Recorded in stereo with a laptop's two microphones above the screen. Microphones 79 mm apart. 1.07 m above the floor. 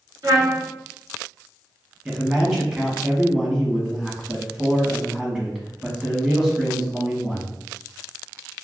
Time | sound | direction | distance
0.2 | a trumpet | 50° right (ahead or behind) | 1.6 m
2.0 | a man speaking | 10° right (ahead or behind) | 1.4 m